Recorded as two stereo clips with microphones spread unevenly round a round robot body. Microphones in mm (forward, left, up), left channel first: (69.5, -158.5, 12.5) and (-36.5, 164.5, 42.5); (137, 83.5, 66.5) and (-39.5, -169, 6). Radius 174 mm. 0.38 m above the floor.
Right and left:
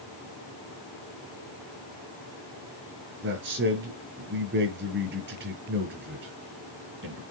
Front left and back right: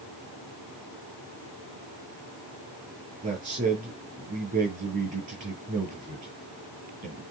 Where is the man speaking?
170° left, 4.5 m.